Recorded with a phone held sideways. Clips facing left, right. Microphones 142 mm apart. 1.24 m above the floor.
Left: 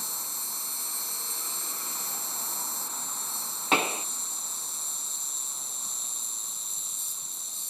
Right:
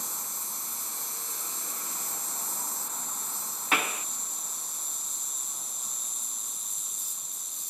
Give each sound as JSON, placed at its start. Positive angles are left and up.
{"t": 0.0, "sound": "an insect", "side_deg": 25}
{"t": 3.7, "sound": "a pop", "side_deg": 25}